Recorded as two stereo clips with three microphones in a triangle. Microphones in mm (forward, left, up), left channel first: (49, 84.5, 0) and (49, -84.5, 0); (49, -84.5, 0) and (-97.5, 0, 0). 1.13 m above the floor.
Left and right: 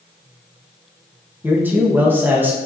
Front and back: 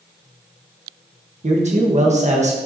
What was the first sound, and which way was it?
A man speaking, 165° right.